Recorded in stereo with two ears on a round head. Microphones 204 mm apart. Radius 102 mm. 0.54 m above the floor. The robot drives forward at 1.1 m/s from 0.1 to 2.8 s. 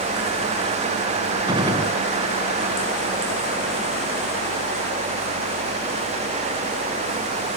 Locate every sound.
1.5 s a gunshot: 20° right (ahead or behind), 2.5 m; by 2.0 s 25° right (ahead or behind), 2 m